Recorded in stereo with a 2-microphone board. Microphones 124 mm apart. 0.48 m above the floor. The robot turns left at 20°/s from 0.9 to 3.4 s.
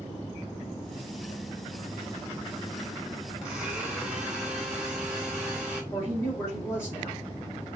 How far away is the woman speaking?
About 0.9 m.